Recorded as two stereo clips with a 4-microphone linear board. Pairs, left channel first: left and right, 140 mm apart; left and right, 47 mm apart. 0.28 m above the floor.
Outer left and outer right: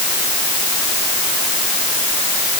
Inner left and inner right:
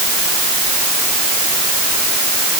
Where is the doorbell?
I don't hear a doorbell.